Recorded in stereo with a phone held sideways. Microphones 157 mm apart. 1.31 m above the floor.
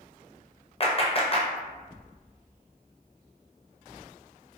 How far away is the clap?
About 0.6 m.